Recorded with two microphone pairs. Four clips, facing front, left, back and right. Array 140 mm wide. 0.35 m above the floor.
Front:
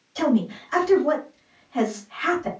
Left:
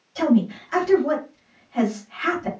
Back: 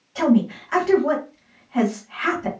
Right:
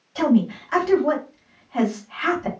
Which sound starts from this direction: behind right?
A woman speaking, at 0.1 s.